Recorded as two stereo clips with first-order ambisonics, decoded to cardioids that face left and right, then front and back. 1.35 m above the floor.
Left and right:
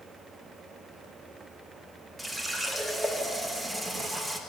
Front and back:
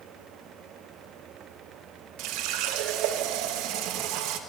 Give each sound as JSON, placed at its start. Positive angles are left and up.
{"t": 2.2, "sound": "a running tap", "azimuth_deg": -175, "distance_m": 0.9}